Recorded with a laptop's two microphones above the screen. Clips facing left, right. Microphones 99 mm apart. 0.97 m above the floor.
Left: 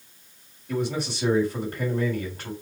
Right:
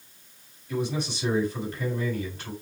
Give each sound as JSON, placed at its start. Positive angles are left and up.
{"t": 0.7, "sound": "a man speaking", "side_deg": 45, "distance_m": 3.5}